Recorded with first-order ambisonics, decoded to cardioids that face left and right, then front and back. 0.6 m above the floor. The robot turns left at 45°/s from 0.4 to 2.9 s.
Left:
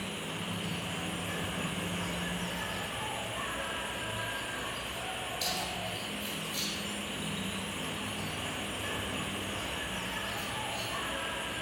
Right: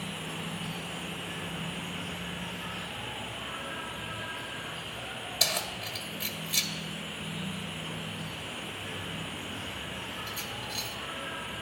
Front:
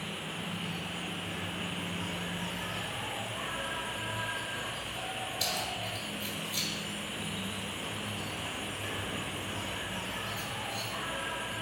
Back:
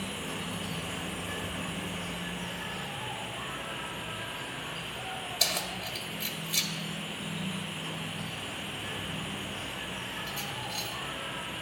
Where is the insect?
165° left, 1.2 m; by 11.6 s 50° left, 1.2 m.